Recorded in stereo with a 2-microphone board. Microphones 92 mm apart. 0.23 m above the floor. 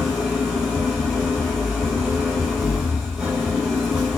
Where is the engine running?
5° right (ahead or behind), 1.7 m.